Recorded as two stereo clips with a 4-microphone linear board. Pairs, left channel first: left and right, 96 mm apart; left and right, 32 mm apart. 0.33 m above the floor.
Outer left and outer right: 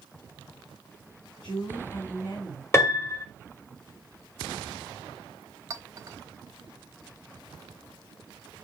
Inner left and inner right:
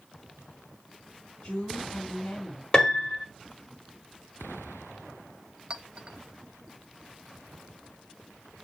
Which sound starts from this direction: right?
A clink, at 5.7 s.